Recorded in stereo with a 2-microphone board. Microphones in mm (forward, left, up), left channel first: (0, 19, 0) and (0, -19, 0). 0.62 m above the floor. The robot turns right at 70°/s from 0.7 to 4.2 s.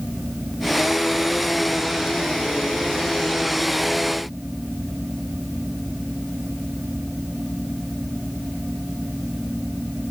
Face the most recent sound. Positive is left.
No sound to turn to.